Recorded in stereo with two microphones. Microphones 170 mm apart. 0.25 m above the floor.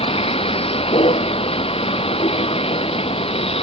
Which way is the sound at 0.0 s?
35° left (ahead or behind).